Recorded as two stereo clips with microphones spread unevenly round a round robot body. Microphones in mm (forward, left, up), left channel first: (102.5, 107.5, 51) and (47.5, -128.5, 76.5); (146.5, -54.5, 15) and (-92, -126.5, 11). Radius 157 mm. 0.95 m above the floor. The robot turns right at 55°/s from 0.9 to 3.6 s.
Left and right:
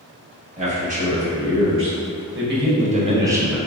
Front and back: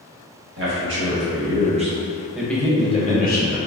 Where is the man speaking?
155° right, 1.2 m; by 3.6 s 10° right, 1.2 m.